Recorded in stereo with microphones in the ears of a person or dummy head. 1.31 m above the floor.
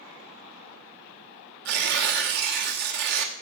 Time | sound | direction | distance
1.6 | tearing paper | 55° right (ahead or behind) | 1.1 m